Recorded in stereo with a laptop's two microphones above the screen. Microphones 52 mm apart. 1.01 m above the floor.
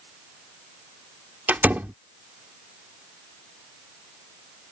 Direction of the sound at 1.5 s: 35° right (ahead or behind).